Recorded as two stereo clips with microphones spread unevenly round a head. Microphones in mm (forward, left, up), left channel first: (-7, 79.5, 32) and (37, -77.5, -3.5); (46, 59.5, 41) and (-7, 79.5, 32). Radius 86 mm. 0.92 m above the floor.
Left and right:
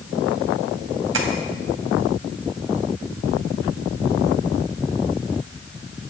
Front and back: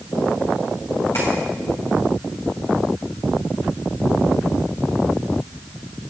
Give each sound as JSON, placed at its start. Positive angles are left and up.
{"t": 1.1, "sound": "tapping", "azimuth_deg": -90, "distance_m": 2.5}